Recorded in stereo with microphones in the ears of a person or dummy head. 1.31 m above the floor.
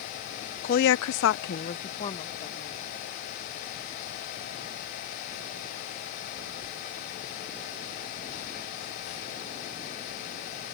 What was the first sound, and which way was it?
A woman speaking, 35° left (ahead or behind).